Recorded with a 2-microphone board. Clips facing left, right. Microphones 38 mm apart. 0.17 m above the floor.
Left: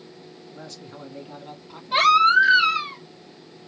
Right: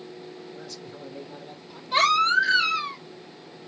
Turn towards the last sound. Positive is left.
turn(degrees=20)  # may be behind; listen again after turning